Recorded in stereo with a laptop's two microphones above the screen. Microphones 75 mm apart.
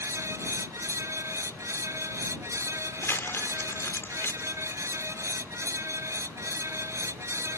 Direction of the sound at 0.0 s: 40° right (ahead or behind).